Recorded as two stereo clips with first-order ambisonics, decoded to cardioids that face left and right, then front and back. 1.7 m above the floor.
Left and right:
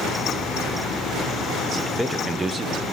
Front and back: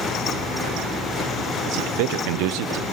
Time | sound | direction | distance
1.6 | a man speaking | 175° left | 1.4 m